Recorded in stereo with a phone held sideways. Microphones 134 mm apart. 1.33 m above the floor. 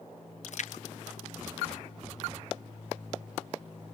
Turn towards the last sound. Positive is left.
turn(degrees=60)  # may be behind; listen again after turning